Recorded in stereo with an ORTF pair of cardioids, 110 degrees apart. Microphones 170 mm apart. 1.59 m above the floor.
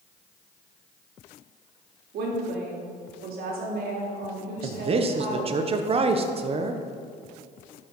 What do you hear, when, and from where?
2.1 s a woman speaking: 65° right, 3 m
4.6 s a man speaking: 35° right, 1.1 m